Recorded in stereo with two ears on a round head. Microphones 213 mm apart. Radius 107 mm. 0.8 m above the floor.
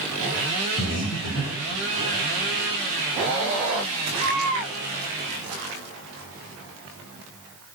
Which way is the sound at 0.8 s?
60° left (ahead or behind).